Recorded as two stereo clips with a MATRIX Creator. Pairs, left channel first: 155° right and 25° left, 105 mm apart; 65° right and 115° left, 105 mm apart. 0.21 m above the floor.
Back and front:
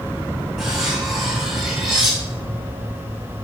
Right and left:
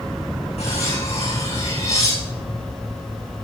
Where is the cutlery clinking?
65° right, 8 m.